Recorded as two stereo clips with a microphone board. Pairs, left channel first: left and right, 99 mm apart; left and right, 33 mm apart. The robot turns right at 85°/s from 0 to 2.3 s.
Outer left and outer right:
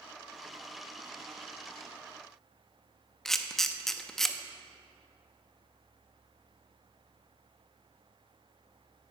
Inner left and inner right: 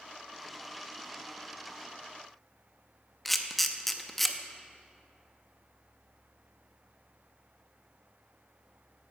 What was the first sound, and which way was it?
A camera shutter, 5° left (ahead or behind).